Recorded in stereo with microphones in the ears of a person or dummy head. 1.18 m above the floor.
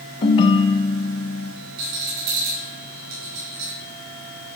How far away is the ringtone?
About 0.7 m.